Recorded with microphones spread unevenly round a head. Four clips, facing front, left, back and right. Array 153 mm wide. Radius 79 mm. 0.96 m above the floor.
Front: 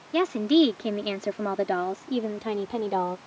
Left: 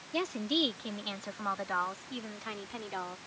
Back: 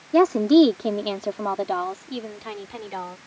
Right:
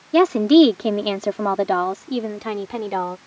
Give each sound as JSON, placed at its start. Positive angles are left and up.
{"t": 0.1, "sound": "a woman speaking", "azimuth_deg": -120}